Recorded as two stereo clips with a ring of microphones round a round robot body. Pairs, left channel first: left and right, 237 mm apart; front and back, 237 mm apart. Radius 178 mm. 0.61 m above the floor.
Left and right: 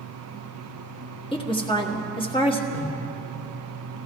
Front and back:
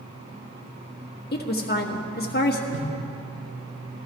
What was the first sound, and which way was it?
A woman speaking, 30° left.